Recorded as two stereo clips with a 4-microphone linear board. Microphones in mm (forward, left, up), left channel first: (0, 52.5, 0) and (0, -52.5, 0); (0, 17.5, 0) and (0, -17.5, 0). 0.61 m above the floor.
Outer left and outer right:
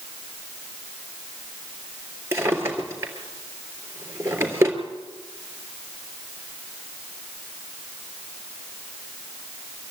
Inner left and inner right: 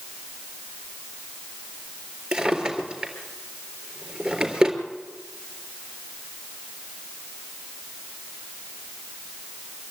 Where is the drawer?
25° right (ahead or behind), 3.5 m.